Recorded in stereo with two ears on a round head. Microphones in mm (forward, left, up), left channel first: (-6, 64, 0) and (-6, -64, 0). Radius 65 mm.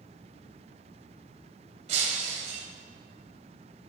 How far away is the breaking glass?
About 2 m.